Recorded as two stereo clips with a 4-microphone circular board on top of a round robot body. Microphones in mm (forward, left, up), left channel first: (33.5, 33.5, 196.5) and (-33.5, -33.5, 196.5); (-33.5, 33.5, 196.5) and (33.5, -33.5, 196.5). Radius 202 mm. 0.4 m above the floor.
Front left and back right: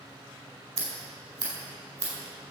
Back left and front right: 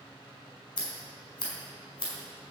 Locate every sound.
0.8 s scissors: 170° left, 4.5 m